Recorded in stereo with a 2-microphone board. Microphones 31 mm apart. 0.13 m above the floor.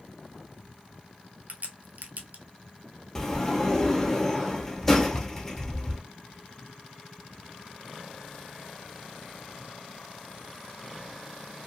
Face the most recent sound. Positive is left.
turn(degrees=30)  # may be behind; listen again after turning